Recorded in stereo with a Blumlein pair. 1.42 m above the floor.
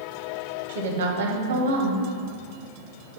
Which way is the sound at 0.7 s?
55° right.